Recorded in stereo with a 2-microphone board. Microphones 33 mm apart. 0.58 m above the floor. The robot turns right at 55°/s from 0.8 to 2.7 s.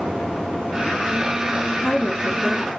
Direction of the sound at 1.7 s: 160° left.